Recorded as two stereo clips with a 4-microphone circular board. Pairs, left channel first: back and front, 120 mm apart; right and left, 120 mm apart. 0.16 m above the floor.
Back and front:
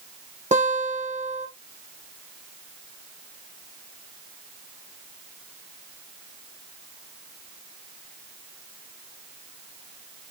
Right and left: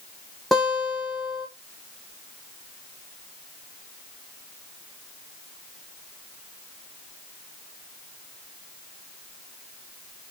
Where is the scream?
I don't hear a scream.